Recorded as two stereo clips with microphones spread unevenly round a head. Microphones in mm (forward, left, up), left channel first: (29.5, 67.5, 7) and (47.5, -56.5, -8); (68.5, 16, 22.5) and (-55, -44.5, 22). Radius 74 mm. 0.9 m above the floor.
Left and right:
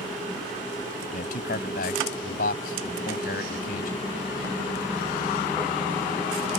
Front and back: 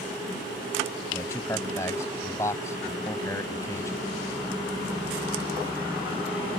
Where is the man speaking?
100° left.